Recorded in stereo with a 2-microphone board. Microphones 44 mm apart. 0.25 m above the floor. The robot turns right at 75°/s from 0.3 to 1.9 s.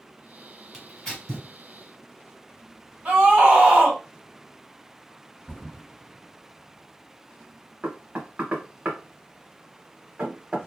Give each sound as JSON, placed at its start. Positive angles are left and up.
{"t": 0.7, "sound": "tearing paper", "side_deg": -5, "distance_m": 1.5}
{"t": 3.0, "sound": "a scream", "side_deg": -40, "distance_m": 2.0}
{"t": 5.5, "sound": "a thud", "side_deg": 15, "distance_m": 1.4}
{"t": 7.8, "sound": "knocking", "side_deg": -30, "distance_m": 1.1}